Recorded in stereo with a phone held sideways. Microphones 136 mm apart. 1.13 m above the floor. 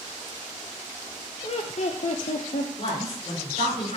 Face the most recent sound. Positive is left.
turn(degrees=45)  # may be behind; listen again after turning